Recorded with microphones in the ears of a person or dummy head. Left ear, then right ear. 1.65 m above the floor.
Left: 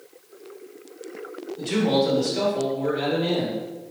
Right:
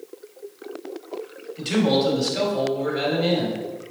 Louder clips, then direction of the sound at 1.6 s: Right 1 dB; 30° right (ahead or behind).